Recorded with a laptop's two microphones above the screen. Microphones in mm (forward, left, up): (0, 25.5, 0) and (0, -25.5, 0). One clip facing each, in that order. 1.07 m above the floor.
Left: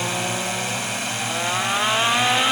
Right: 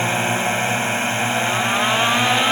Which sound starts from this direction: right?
A drone, at 0.0 s.